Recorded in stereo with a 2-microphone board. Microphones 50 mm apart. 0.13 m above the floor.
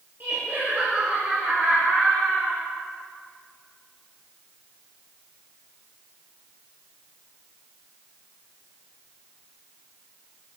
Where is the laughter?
45° right (ahead or behind), 3.5 m; by 2.6 s 20° right (ahead or behind), 3 m.